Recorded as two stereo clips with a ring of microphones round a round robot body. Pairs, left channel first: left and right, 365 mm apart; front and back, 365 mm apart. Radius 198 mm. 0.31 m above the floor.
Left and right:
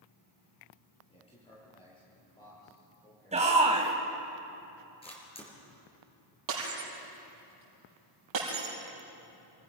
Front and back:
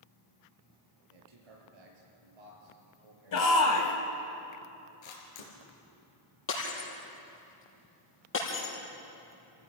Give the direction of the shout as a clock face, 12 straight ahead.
1 o'clock.